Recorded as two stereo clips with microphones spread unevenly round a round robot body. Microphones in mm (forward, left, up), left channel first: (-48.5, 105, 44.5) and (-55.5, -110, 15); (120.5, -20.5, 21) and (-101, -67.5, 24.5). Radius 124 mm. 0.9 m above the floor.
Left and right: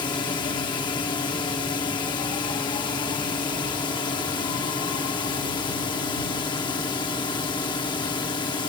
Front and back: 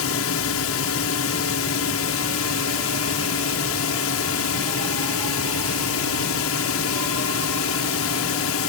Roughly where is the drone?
Ahead.